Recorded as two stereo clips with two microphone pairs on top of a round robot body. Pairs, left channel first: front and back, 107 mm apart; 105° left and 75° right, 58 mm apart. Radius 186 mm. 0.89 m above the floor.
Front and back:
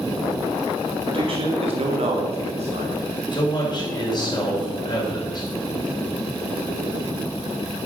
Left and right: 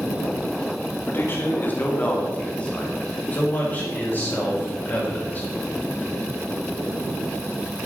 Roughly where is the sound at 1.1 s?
Behind left.